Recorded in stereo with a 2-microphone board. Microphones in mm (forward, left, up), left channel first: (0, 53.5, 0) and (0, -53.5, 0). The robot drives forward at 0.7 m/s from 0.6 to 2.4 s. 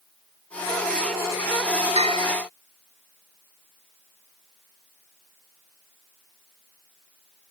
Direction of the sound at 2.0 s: 75° right (ahead or behind).